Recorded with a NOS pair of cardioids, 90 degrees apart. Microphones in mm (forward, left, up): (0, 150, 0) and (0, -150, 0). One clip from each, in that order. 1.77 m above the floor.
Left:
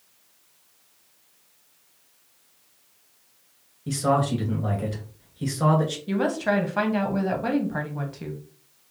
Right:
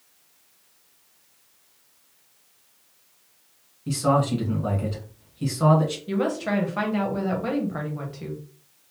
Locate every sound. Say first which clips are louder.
3.9 s a man speaking: right 1 dB; 5° left, 2 m
6.1 s a woman speaking: left 4 dB; 15° left, 1.1 m